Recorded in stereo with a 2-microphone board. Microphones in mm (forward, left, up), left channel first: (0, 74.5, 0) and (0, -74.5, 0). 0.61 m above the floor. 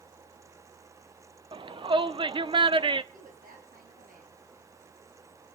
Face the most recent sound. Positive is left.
turn(degrees=-70)  # may be behind; listen again after turning